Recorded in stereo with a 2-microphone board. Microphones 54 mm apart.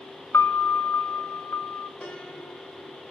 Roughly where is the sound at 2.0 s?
Left.